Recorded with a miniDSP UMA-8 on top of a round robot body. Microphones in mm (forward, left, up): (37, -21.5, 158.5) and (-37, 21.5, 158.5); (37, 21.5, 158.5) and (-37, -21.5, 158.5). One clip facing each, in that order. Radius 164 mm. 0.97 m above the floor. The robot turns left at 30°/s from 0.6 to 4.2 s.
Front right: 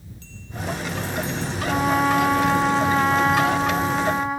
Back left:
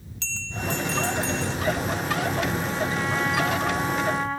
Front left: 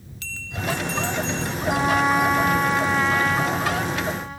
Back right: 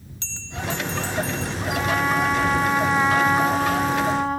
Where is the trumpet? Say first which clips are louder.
Front right 9 dB, front left 3 dB; 35° right; by 4.4 s 110° right.